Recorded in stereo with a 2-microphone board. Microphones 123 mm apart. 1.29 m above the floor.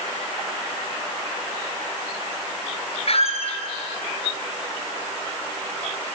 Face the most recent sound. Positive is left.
turn(degrees=55)  # may be behind; listen again after turning